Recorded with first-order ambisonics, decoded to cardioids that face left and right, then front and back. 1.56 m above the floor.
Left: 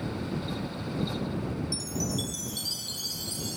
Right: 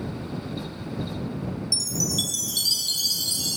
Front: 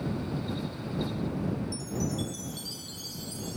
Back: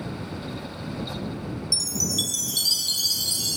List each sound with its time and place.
1.7 s a chime: 150° right